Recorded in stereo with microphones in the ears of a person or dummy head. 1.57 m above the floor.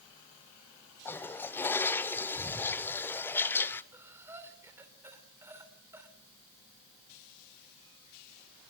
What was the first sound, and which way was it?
A toilet flushing, 15° left (ahead or behind).